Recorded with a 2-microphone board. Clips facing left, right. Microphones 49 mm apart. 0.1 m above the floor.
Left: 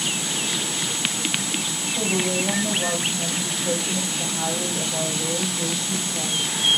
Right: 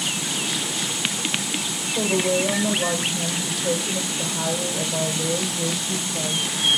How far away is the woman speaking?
About 3.5 m.